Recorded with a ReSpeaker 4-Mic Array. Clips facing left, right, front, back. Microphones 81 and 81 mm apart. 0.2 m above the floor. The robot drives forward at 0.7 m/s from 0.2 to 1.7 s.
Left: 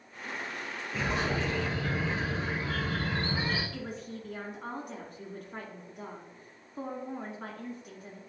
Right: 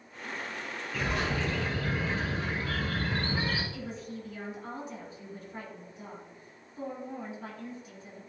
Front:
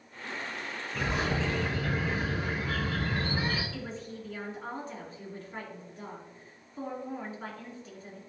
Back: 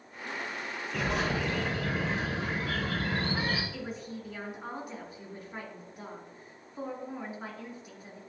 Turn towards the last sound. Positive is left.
turn(degrees=105)